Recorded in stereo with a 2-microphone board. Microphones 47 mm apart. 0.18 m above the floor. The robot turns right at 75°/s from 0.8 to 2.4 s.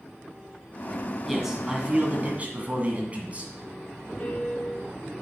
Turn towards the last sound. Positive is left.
turn(degrees=30)  # may be behind; listen again after turning